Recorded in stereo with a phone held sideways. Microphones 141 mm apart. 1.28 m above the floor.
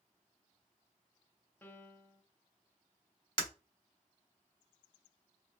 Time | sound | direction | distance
1.6 | a piano | 15° left (ahead or behind) | 0.8 m
3.4 | breaking glass | 35° left (ahead or behind) | 1.5 m